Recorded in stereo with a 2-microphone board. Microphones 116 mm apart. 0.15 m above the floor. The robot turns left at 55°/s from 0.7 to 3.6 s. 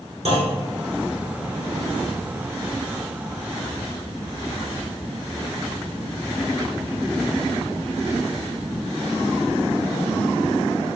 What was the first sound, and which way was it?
A clunk, 55° right (ahead or behind).